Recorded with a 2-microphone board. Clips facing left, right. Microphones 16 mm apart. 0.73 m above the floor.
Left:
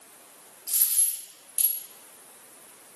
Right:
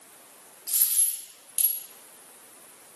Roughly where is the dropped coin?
Right.